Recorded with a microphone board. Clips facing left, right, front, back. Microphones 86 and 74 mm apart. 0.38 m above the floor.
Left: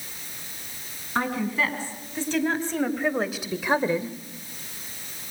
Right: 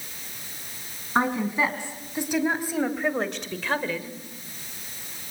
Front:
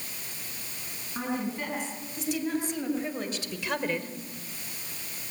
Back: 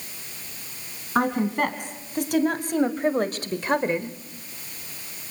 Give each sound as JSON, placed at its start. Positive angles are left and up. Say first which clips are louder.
{"t": 1.1, "sound": "a woman speaking", "louder": "right 2 dB, back 9 dB", "azimuth_deg": -155, "distance_m": 4.5}